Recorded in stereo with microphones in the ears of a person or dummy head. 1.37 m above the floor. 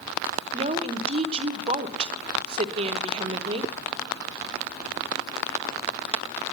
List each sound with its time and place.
0.5 s a woman speaking: 35° right (ahead or behind), 0.9 m